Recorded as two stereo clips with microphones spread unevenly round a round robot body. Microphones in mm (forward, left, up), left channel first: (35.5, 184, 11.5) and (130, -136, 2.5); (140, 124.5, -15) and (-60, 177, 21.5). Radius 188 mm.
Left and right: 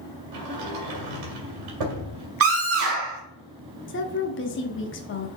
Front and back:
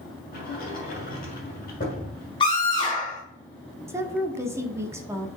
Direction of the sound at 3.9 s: 80° left.